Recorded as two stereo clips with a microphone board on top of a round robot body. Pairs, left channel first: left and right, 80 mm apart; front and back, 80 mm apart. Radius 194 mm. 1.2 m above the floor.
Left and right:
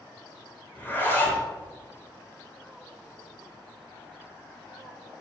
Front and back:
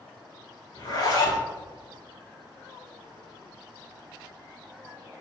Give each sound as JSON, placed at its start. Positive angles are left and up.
{"t": 0.8, "sound": "a zipper", "azimuth_deg": 30, "distance_m": 2.5}